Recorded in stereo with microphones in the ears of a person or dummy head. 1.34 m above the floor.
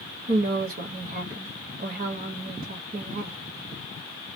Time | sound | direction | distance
0.3 | a woman speaking | 45° right (ahead or behind) | 0.5 m